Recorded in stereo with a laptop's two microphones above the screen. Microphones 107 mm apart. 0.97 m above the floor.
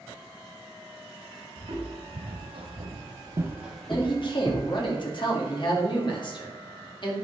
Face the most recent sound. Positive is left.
turn(degrees=50)  # may be behind; listen again after turning